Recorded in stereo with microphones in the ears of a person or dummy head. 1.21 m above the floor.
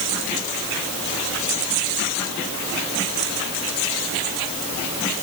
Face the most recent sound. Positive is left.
No sound to turn to.